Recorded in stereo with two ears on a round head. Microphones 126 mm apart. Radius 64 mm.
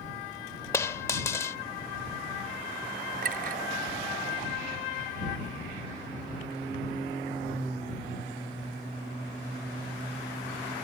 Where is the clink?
70° right (ahead or behind).